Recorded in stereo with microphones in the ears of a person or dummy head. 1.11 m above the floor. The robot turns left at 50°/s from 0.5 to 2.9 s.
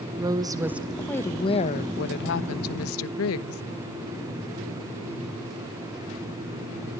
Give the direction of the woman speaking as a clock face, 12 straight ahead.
5 o'clock.